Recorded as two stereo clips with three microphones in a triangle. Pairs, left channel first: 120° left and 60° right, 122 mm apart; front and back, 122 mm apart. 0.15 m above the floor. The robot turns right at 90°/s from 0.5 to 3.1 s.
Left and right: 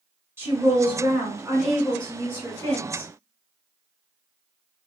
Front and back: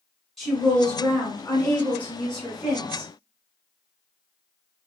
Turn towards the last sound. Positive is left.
turn(degrees=145)